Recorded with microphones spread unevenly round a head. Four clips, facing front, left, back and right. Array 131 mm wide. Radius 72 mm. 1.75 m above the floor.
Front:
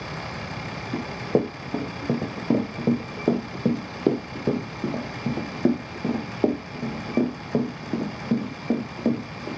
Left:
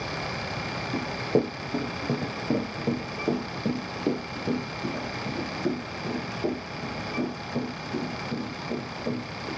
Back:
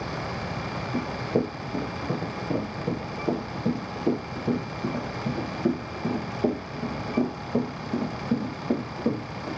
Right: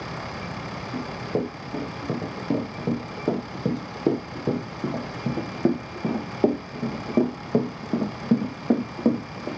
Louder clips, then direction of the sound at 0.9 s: Left 3 dB, front 3 dB; 15° left.